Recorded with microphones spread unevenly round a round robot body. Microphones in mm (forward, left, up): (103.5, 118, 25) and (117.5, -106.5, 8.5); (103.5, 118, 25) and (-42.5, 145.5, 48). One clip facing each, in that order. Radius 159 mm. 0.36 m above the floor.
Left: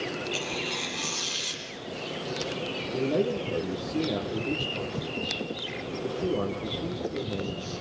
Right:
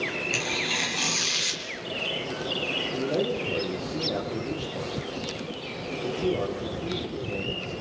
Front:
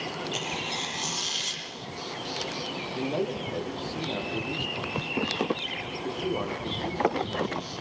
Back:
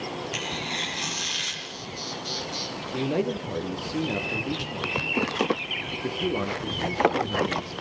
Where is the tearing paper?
135° right, 6 m.